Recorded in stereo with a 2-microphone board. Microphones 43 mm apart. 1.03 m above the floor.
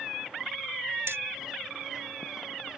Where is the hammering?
85° right.